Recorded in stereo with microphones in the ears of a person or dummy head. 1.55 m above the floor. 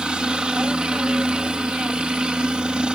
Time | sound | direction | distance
0.0 | a helicopter | 5° right (ahead or behind) | ?